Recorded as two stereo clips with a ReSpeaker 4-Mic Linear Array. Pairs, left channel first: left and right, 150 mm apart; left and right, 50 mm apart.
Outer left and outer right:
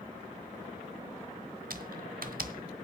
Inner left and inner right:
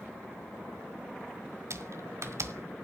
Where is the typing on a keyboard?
75° right (ahead or behind), 1.3 m.